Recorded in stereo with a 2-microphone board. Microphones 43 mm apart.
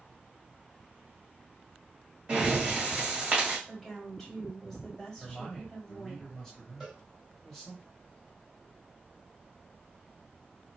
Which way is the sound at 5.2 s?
10° left (ahead or behind).